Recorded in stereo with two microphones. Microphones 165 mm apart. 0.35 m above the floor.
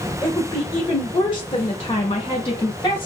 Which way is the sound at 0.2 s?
20° left (ahead or behind).